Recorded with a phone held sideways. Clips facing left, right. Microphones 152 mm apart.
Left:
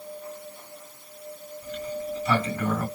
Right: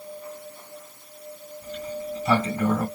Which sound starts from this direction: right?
A sliding door, at 1.6 s.